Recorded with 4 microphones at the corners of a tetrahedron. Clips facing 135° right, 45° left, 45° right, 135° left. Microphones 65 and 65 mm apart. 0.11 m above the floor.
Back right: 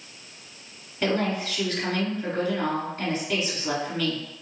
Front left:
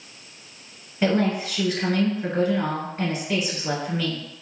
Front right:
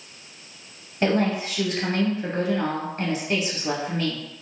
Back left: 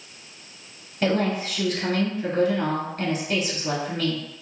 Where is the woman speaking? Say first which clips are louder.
Front left 3 dB, front right 1 dB; 5° right, 1.2 m.